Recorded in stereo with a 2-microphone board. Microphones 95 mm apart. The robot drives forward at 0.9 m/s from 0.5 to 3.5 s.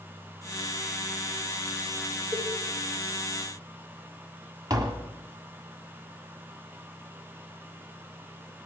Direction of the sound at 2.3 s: 40° right (ahead or behind).